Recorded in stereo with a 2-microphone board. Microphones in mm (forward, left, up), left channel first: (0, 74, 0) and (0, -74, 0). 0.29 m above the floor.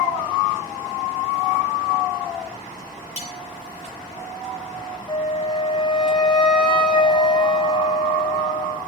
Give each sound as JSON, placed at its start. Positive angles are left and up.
{"t": 3.2, "sound": "cutlery clinking", "side_deg": 45, "distance_m": 4.0}
{"t": 5.1, "sound": "a flute", "side_deg": 30, "distance_m": 2.0}